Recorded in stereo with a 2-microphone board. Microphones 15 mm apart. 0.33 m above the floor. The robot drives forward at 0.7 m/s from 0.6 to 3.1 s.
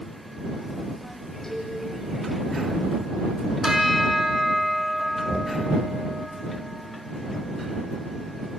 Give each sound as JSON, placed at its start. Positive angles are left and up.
{"t": 1.4, "sound": "a cowbell", "side_deg": 30, "distance_m": 7.5}
{"t": 3.6, "sound": "a bell", "side_deg": -50, "distance_m": 3.0}
{"t": 5.3, "sound": "knocking", "side_deg": -30, "distance_m": 1.2}